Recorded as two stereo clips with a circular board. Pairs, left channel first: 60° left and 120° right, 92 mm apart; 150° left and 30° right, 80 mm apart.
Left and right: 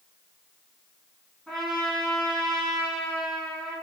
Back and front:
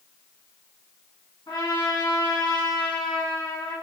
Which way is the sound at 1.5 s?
145° left.